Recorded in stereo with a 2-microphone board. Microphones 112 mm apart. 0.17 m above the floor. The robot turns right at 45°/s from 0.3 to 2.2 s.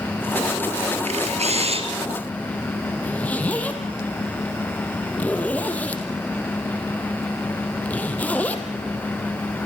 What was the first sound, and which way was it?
A camera shutter, 95° right.